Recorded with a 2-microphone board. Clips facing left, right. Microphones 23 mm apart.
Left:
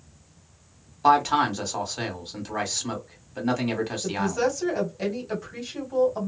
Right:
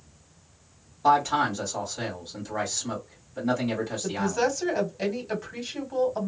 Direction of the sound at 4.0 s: 15° right (ahead or behind).